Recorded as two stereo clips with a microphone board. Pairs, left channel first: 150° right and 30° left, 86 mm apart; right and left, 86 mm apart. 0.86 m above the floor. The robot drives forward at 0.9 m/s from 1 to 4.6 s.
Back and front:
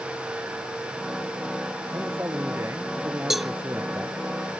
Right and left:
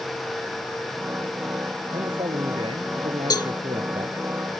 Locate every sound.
1.9 s a man speaking: 90° left; by 4.3 s 95° left
3.3 s a cowbell: 55° right; by 3.5 s 65° right